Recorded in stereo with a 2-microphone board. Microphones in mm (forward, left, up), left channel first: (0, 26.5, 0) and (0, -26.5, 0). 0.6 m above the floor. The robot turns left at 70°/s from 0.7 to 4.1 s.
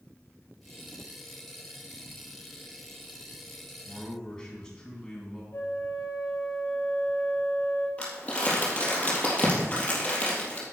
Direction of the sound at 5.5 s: 60° left (ahead or behind).